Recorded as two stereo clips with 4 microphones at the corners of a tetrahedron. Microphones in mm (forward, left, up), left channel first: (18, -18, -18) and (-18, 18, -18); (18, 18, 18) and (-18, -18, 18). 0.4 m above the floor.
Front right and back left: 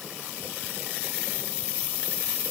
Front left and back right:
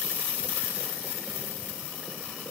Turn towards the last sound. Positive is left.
No sound to turn to.